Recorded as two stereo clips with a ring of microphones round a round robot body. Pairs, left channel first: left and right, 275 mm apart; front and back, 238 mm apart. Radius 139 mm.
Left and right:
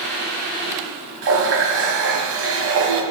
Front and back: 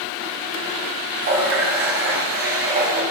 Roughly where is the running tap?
Behind right.